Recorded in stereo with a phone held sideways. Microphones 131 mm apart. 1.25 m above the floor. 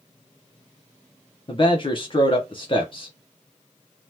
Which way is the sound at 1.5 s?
40° left (ahead or behind).